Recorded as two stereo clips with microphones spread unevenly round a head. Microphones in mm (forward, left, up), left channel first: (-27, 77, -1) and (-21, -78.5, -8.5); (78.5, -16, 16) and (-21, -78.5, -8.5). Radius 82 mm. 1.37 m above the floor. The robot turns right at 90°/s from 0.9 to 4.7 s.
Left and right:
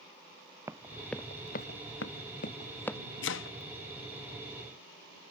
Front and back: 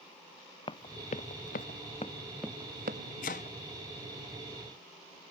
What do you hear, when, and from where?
0.7 s running footsteps: 10° right; by 3.0 s straight behind
3.2 s chopping: 70° left; by 3.6 s 100° left